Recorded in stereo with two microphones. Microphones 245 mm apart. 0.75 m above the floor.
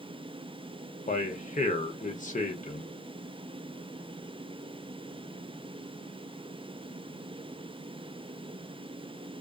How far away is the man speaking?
About 0.8 m.